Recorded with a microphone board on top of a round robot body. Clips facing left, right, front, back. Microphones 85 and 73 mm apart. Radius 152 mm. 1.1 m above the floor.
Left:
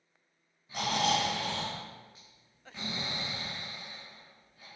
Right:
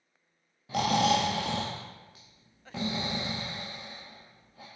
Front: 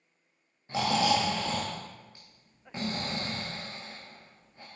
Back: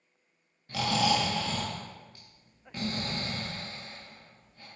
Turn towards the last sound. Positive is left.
turn(degrees=-65)